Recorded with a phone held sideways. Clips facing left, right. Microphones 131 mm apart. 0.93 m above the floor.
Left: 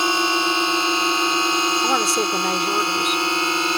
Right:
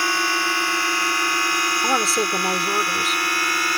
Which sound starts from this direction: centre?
A woman speaking, at 1.8 s.